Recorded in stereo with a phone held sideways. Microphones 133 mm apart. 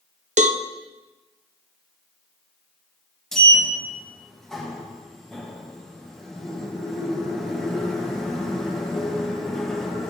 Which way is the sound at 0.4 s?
65° right (ahead or behind).